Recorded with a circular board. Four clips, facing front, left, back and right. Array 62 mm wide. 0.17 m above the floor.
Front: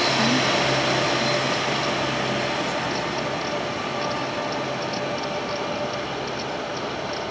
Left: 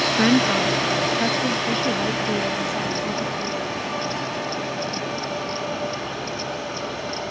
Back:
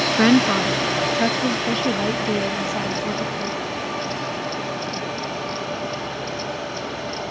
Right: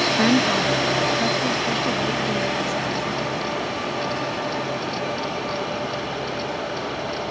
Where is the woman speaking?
165° left; by 3.6 s 160° left.